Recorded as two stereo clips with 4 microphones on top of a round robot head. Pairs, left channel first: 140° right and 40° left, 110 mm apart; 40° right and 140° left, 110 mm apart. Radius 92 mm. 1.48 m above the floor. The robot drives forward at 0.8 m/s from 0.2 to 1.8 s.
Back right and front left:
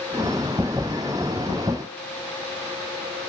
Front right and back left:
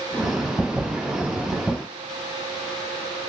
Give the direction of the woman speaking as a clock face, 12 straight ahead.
I don't hear a woman speaking.